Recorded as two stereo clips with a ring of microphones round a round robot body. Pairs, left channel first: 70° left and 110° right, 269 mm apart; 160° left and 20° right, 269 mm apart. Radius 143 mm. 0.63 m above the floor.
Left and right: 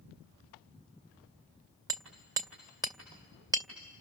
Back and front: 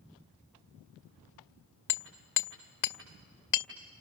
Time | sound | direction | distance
1.9 | hammering | 170° left | 1.7 m